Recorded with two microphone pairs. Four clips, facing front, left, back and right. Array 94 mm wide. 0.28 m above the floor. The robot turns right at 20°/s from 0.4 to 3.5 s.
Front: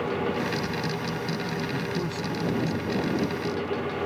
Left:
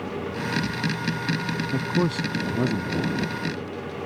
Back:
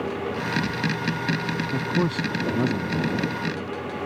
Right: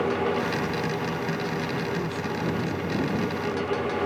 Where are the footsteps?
No footsteps in this recording.